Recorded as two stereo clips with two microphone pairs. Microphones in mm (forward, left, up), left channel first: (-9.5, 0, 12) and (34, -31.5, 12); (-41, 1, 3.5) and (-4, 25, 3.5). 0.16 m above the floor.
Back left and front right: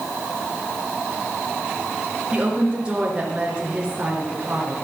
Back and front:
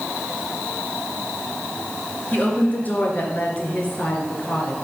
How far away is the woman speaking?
About 3 m.